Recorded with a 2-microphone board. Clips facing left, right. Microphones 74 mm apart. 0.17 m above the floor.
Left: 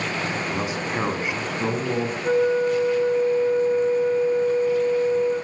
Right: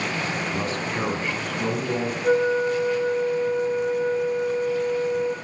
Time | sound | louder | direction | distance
0.5 | a man speaking | left 1 dB | 10° left (ahead or behind) | 1.7 m
2.2 | a flute | even | 10° right (ahead or behind) | 7.5 m